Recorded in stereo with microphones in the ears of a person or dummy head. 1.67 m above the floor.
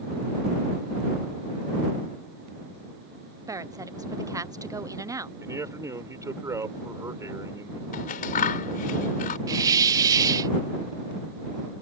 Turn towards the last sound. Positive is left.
turn(degrees=-20)  # may be behind; listen again after turning